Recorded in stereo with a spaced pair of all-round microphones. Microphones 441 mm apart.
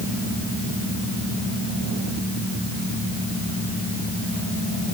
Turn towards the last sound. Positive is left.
No sound to turn to.